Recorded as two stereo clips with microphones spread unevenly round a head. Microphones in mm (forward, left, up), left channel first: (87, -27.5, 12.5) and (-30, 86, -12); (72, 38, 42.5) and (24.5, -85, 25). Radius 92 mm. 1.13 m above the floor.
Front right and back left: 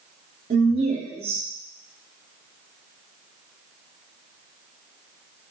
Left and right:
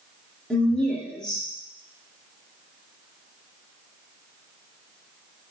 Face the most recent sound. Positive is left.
turn(degrees=160)